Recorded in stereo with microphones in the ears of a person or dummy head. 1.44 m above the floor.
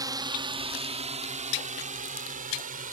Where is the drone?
20° right (ahead or behind); by 2.9 s 45° right (ahead or behind).